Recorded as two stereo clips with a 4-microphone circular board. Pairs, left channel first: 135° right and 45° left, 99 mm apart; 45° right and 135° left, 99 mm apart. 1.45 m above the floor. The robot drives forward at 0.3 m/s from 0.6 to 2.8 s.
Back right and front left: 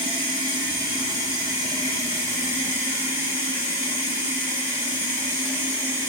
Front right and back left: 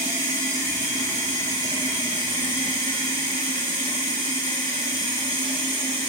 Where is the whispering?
I don't hear whispering.